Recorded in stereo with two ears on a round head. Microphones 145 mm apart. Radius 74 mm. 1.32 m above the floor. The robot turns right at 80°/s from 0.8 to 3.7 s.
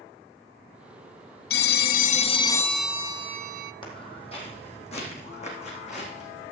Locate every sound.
1.5 s a phone ringing: 75° left, 0.6 m; by 3.7 s 110° right, 0.6 m
3.8 s footsteps: 35° left (ahead or behind), 2 m; by 6.5 s 50° left (ahead or behind), 4 m